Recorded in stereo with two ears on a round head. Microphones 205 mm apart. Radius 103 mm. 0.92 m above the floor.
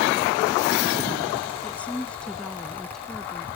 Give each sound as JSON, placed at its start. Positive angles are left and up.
{"t": 1.6, "sound": "a woman speaking", "side_deg": 5}